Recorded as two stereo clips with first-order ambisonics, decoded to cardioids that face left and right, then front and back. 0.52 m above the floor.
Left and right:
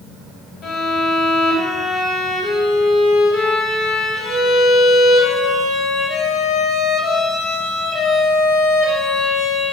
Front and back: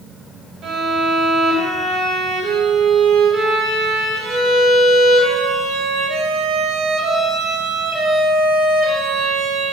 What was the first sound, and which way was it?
A violin, 125° left.